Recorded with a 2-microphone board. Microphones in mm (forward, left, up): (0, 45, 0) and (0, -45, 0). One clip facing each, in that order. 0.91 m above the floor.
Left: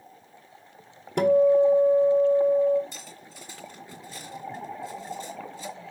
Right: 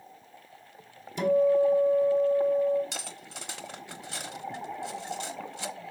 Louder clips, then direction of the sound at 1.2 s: Left 4 dB; 65° left (ahead or behind).